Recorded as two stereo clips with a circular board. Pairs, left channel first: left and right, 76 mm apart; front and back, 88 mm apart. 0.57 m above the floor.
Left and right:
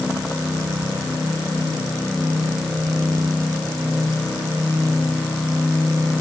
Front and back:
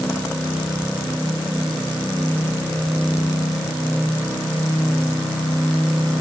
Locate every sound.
Only background noise.